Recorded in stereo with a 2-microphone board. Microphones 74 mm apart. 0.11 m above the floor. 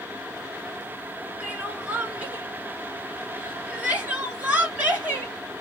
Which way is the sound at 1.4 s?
20° right (ahead or behind).